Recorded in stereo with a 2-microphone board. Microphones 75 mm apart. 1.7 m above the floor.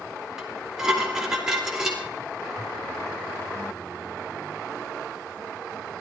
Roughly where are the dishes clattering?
Centre.